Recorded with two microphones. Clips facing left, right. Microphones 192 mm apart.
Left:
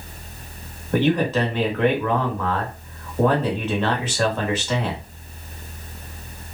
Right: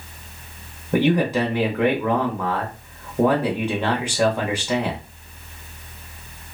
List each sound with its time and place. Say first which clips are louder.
0.9 s a man speaking: right 1 dB; 15° right (ahead or behind), 0.9 m